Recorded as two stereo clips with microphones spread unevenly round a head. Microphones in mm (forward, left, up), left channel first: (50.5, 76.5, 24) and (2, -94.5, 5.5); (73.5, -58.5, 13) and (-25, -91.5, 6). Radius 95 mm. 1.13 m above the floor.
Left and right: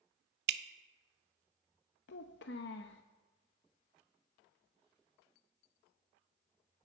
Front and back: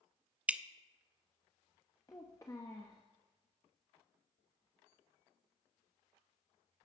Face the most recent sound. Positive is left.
turn(degrees=85)